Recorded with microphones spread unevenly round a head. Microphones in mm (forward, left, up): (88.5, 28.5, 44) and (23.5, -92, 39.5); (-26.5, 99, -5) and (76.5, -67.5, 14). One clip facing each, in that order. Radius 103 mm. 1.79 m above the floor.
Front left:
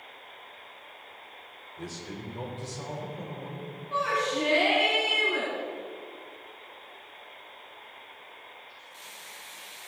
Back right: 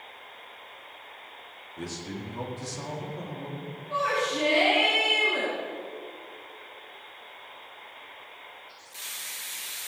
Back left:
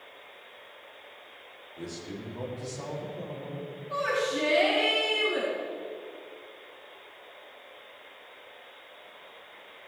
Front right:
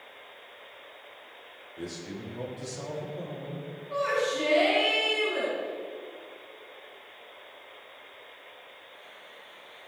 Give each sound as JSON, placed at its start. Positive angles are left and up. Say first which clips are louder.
{"t": 1.8, "sound": "a man speaking", "louder": "back right 3 dB, front right 1 dB", "azimuth_deg": -140, "distance_m": 5.0}
{"t": 3.9, "sound": "a shout", "louder": "back right 1 dB, front right 1 dB", "azimuth_deg": 175, "distance_m": 4.5}